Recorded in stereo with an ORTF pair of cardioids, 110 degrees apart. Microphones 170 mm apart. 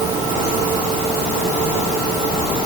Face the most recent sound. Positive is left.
No sound to turn to.